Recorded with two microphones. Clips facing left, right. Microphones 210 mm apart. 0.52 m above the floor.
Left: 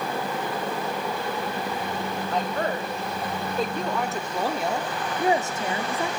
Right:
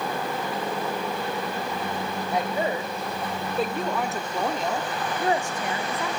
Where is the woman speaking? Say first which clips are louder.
Right 2 dB; 10° right (ahead or behind), 2.5 m; by 6.1 s 30° left (ahead or behind), 1.0 m.